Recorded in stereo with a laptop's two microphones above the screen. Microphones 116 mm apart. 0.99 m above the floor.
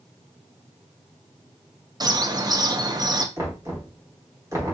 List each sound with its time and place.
2.0 s a bird: 35° right (ahead or behind), 0.6 m
3.4 s knocking: 25° right (ahead or behind), 1.0 m